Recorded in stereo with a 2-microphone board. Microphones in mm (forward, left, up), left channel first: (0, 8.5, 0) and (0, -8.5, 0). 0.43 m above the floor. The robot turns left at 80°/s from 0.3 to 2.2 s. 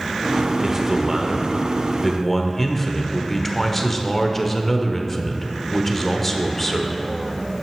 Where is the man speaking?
65° right, 0.9 m; by 7.0 s 170° left, 0.9 m.